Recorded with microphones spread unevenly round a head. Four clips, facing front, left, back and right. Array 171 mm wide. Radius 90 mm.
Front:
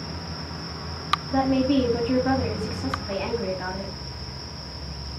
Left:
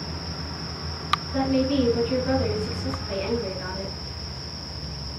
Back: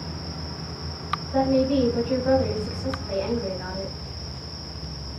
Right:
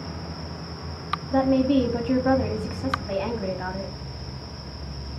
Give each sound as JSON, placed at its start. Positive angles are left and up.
{"t": 1.3, "sound": "a woman speaking", "azimuth_deg": -60, "distance_m": 1.3}